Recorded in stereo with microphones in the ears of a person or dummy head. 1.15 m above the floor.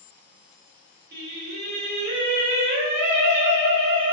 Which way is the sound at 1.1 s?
60° right (ahead or behind).